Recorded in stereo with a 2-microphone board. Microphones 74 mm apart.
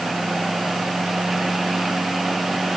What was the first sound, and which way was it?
Only background noise.